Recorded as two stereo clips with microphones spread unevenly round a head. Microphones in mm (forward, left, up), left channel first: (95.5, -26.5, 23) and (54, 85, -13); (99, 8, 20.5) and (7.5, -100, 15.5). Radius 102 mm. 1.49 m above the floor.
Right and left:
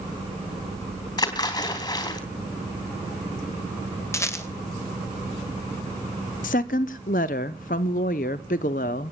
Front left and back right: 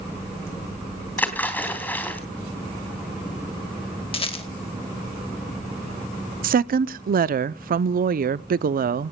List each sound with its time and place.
1.2 s a splash: 25° right, 3 m
4.1 s a rattle: straight ahead, 1.9 m
6.4 s a woman speaking: 105° right, 0.6 m